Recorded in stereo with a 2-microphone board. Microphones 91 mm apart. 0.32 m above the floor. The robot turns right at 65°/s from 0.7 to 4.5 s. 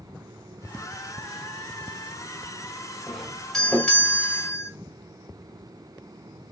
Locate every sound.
3.1 s a doorbell: 10° right (ahead or behind), 1.8 m; by 4.7 s 25° left (ahead or behind), 1.8 m